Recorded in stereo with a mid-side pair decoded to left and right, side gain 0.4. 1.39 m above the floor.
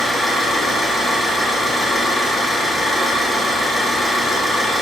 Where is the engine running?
10° right, 1.5 m.